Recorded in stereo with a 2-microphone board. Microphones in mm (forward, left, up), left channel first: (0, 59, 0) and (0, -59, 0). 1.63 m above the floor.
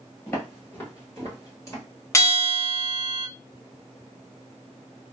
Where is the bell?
25° left (ahead or behind), 0.6 m.